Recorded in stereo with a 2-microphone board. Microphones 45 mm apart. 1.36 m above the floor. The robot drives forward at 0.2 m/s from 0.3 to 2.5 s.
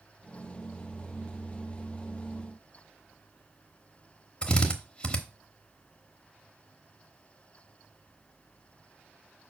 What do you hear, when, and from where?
4.4 s a drill: 20° left (ahead or behind), 0.9 m